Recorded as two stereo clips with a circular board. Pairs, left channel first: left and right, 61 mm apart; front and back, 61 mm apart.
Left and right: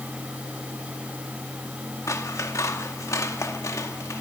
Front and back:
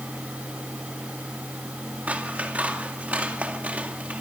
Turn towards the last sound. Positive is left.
turn(degrees=115)